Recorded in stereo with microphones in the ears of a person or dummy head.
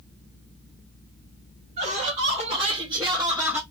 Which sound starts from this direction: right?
Laughter, at 1.8 s.